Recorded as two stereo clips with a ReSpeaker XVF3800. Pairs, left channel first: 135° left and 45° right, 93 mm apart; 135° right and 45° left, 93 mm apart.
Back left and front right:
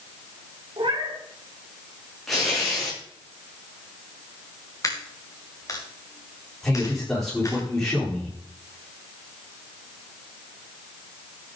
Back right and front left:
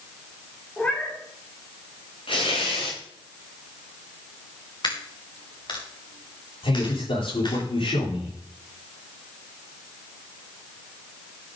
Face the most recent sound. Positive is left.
turn(degrees=-135)